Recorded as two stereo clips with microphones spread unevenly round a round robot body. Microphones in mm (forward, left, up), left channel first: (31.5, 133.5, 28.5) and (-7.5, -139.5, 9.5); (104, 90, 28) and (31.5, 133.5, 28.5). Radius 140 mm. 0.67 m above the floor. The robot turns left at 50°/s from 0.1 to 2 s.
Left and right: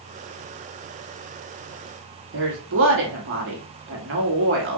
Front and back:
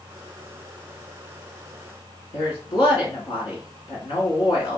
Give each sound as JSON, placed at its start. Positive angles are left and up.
{"t": 2.3, "sound": "a woman speaking", "azimuth_deg": -60, "distance_m": 1.3}